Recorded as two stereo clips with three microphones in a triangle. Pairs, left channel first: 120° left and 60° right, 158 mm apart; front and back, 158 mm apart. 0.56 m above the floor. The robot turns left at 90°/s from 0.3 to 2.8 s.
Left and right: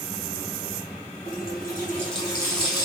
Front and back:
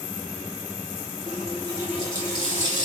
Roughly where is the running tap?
Behind.